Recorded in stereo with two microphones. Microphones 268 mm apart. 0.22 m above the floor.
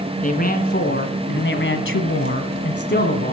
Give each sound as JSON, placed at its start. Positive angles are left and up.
{"t": 0.2, "sound": "a man speaking", "side_deg": 30, "distance_m": 2.5}